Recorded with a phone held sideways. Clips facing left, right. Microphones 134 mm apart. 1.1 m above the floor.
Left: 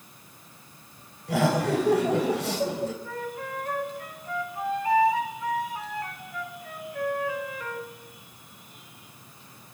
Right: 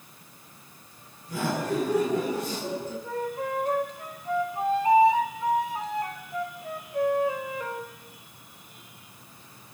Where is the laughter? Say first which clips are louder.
Left 5 dB; 85° left, 4.5 m.